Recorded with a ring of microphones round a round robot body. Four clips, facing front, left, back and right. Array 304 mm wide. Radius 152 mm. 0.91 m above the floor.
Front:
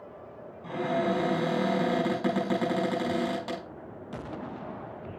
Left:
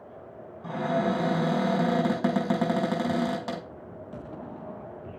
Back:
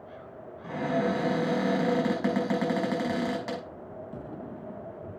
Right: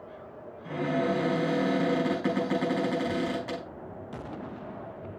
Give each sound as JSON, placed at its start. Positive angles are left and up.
{"t": 0.6, "sound": "a cupboard door", "azimuth_deg": 100, "distance_m": 5.0}